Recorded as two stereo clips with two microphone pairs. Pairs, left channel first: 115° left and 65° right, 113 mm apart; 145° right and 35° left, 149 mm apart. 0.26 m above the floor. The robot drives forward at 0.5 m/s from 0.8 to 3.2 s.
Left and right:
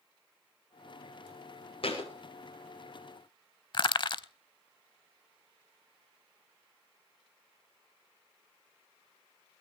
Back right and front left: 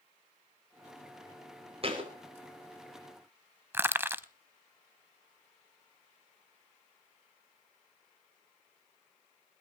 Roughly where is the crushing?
Left.